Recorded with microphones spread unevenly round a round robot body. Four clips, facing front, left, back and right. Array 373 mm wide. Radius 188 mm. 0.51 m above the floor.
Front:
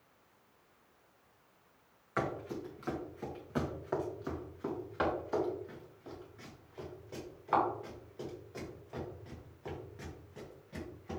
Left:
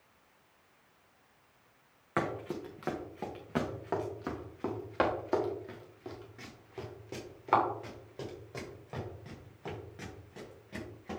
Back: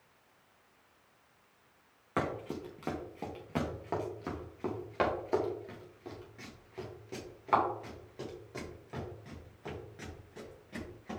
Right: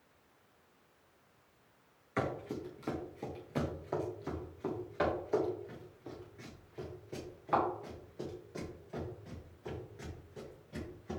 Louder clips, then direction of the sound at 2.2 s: Left 2 dB, back 1 dB; 135° left.